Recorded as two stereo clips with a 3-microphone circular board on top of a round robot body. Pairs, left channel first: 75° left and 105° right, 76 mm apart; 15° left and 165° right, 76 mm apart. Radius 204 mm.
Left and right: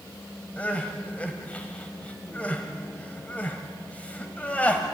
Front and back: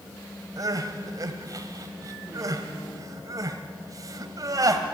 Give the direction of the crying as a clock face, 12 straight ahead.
7 o'clock.